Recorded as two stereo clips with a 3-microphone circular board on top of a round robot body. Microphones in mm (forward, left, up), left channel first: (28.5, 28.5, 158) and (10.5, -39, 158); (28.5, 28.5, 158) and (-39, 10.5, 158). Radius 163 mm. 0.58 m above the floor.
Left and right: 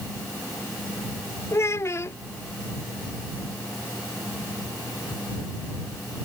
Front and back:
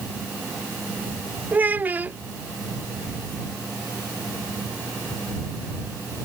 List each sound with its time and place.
1.5 s a child speaking: 125° left